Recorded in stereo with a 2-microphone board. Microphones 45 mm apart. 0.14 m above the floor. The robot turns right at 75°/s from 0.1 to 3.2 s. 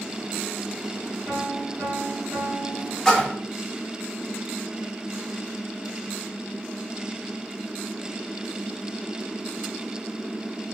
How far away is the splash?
About 1.2 m.